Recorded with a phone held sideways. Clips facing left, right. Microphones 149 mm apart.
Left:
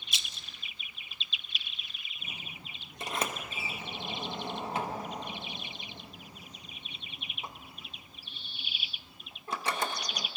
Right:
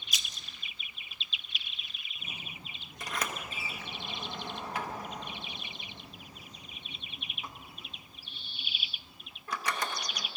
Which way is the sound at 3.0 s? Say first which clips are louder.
Left 2 dB; 25° left (ahead or behind).